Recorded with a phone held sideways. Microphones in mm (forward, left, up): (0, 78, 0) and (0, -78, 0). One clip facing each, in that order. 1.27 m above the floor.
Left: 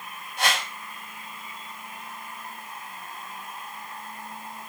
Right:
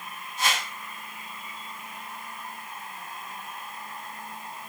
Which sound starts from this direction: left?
A whoosh, at 0.4 s.